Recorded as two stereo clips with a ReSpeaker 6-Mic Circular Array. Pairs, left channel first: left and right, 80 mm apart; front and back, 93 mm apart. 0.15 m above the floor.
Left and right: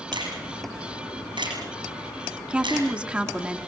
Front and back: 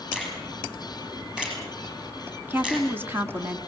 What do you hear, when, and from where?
0.1 s a finger snap: 100° right, 8 m
2.5 s a woman speaking: 145° right, 1.7 m